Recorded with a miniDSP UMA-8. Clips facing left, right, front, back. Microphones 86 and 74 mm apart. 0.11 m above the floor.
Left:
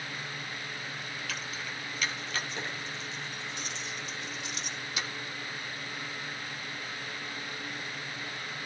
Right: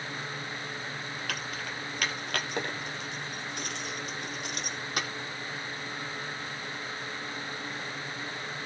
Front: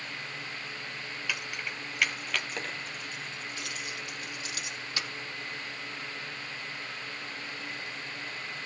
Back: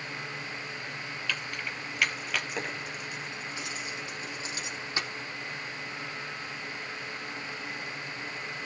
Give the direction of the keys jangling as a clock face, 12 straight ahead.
3 o'clock.